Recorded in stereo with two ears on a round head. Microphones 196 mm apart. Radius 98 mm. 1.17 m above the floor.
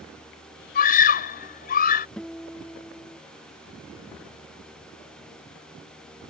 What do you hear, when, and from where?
0.8 s a scream: 40° left (ahead or behind)
2.2 s a guitar: 5° left (ahead or behind)